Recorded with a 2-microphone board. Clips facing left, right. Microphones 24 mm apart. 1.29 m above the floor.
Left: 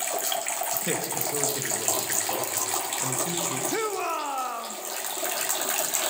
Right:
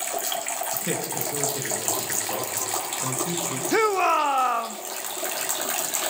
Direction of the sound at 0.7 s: Centre (ahead or behind).